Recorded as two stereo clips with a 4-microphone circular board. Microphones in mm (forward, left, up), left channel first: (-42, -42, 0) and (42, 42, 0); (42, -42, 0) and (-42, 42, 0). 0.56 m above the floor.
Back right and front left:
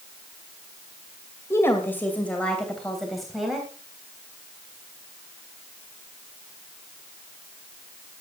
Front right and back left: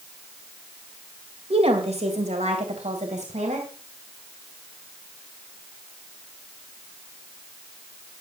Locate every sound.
1.5 s a woman speaking: 160° left, 2.5 m; by 3.7 s 135° left, 3 m